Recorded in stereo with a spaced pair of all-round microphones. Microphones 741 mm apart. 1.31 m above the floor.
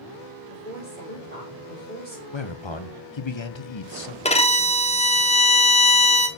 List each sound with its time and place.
0.5 s a woman speaking: 10° left (ahead or behind), 5 m
2.3 s a man speaking: 40° left (ahead or behind), 0.9 m
4.2 s a violin: 10° left (ahead or behind), 0.9 m